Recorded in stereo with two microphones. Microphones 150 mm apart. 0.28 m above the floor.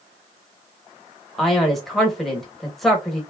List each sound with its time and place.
1.4 s a man speaking: centre (ahead or behind), 1.0 m